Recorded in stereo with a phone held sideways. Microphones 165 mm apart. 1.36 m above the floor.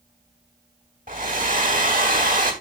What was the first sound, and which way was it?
A hair dryer, 55° right (ahead or behind).